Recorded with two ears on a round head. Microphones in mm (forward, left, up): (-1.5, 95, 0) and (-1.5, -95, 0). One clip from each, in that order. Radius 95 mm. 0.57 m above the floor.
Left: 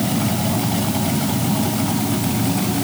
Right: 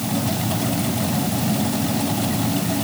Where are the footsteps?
I don't hear footsteps.